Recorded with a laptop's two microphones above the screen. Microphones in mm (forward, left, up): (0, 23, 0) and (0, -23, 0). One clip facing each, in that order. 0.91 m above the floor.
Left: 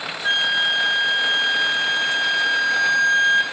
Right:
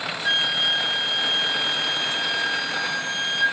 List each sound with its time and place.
0.2 s a flute: 35° left (ahead or behind), 1.3 m